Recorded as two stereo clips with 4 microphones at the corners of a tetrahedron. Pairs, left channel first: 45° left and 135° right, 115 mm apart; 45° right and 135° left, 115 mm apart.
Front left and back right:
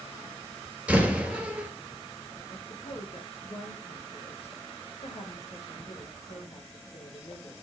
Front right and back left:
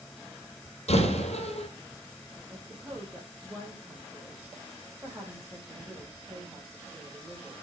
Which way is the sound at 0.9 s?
55° right.